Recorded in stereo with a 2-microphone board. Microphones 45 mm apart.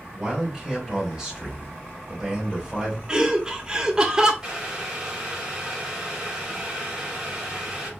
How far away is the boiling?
About 2 m.